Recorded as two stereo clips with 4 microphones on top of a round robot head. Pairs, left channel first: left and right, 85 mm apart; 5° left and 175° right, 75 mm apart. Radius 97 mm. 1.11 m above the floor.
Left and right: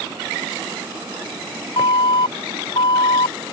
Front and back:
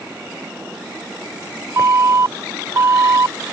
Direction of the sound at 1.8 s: 135° left.